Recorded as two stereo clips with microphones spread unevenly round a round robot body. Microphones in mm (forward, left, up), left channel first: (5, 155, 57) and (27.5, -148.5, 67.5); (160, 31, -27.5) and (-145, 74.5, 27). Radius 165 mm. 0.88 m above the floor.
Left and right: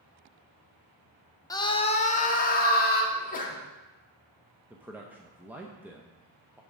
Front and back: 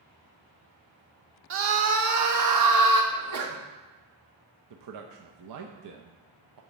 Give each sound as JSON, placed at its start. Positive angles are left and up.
{"t": 1.5, "sound": "a scream", "azimuth_deg": 155, "distance_m": 0.8}
{"t": 3.1, "sound": "a sneeze", "azimuth_deg": 150, "distance_m": 1.6}
{"t": 4.7, "sound": "a man speaking", "azimuth_deg": -170, "distance_m": 0.6}